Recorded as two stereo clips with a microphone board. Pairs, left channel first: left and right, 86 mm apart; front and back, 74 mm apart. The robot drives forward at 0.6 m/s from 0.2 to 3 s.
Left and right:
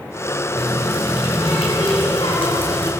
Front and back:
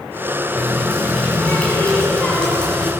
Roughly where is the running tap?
Left.